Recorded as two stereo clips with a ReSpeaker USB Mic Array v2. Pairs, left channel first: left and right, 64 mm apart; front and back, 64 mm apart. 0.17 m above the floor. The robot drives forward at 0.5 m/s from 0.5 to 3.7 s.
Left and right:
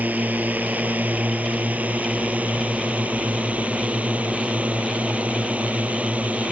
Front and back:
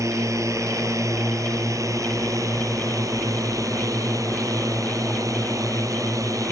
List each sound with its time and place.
0.0 s a drone: 155° right; by 6.5 s 160° right